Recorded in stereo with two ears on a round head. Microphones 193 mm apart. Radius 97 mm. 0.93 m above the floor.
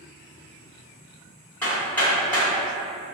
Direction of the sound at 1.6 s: 10° left (ahead or behind).